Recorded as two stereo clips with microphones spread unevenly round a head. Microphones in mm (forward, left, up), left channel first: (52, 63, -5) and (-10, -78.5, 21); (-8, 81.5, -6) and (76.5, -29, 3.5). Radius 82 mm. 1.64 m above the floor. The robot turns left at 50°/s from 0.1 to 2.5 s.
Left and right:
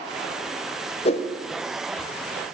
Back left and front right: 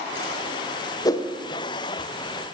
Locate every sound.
1.1 s a whoosh: 90° left, 0.6 m; by 1.3 s 80° left, 0.6 m